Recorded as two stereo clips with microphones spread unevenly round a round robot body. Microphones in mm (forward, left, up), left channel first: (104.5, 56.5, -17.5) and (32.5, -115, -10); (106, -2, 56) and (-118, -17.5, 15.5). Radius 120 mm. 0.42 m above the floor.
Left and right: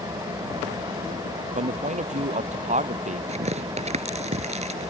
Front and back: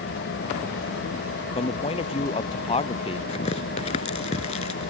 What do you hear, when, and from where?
0.0 s an engine running: 40° right
1.6 s a man speaking: 60° right
3.3 s tearing paper: 60° right